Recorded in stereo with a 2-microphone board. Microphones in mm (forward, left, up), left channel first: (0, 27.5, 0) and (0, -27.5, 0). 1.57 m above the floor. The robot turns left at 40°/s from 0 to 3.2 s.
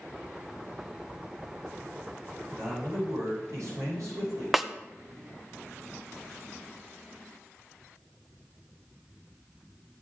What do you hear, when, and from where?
2.5 s a man speaking: 70° right (ahead or behind), 6.5 m; by 4.4 s 85° right, 6.5 m
4.5 s a snare drum: 5° right (ahead or behind), 0.6 m